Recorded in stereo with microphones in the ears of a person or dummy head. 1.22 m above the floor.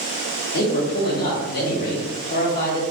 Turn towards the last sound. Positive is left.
turn(degrees=50)  # may be behind; listen again after turning